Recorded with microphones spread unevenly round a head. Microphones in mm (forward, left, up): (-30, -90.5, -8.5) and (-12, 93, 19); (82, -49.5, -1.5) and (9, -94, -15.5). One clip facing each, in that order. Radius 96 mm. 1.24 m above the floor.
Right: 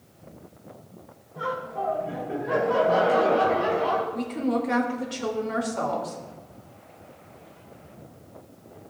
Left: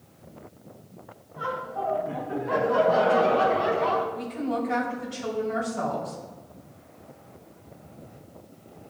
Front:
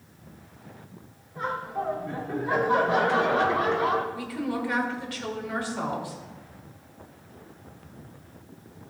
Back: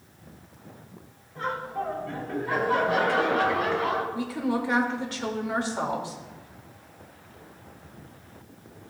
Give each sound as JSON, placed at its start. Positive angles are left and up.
{"t": 1.4, "sound": "laughter", "azimuth_deg": -45, "distance_m": 4.0}
{"t": 4.1, "sound": "a woman speaking", "azimuth_deg": -90, "distance_m": 2.5}